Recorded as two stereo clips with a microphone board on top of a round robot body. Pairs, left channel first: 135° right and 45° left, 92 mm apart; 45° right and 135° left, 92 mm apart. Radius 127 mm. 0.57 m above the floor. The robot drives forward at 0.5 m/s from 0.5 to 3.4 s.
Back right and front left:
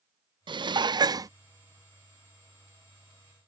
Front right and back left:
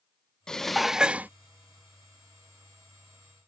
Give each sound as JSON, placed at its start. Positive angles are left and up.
{"t": 0.5, "sound": "dishes clattering", "azimuth_deg": 35}